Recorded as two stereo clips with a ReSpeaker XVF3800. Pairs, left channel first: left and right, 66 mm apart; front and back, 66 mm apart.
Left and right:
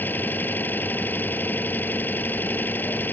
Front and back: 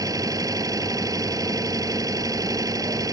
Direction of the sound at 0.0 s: 155° left.